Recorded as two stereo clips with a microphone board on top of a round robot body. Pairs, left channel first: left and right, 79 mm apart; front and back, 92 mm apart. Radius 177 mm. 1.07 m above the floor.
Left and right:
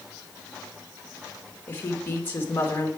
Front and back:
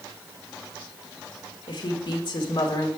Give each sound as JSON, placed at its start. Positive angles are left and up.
{"t": 1.7, "sound": "a woman speaking", "azimuth_deg": 25, "distance_m": 1.7}